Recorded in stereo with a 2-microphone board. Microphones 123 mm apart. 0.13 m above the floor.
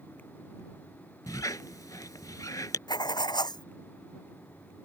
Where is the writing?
35° left (ahead or behind).